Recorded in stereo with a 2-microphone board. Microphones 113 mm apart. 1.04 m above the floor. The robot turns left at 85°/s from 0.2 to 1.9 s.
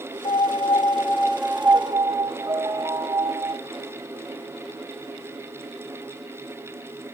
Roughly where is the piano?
Left.